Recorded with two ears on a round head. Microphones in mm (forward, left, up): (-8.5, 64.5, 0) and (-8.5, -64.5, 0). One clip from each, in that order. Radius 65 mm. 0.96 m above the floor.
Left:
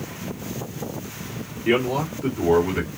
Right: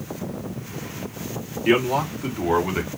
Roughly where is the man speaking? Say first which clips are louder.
Right 2 dB; right.